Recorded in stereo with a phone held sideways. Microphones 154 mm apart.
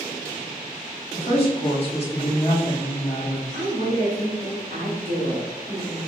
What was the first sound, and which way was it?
A woman speaking, 40° left (ahead or behind).